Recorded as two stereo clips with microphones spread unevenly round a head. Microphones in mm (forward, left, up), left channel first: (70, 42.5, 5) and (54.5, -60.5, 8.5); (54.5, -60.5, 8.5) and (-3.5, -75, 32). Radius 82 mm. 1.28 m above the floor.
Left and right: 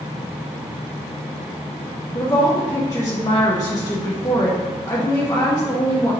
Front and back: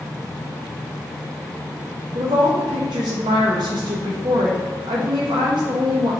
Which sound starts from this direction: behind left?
A woman speaking, at 2.1 s.